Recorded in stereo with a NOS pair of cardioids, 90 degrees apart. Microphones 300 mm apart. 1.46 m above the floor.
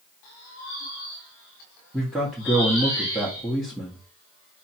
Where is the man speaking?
Straight ahead, 0.8 m.